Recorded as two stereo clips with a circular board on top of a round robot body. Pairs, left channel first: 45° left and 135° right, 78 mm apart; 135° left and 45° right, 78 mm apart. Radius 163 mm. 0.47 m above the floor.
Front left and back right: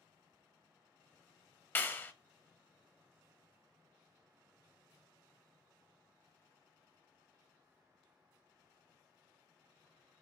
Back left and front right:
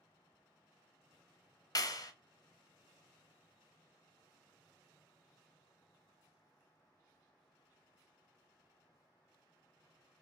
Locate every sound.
1.8 s a clap: 105° left, 0.8 m